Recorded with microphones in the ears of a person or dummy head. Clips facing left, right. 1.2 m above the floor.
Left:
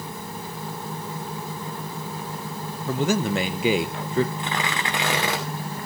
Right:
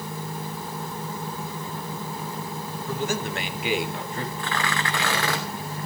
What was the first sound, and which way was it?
A man speaking, 55° left (ahead or behind).